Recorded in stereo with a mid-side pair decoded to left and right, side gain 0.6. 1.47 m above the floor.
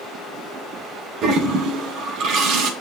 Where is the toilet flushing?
60° right, 1.3 m.